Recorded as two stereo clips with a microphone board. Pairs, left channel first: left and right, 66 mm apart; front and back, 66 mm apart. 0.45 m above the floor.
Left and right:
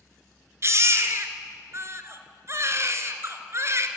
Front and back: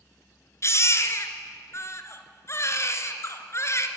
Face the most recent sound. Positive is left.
turn(degrees=-45)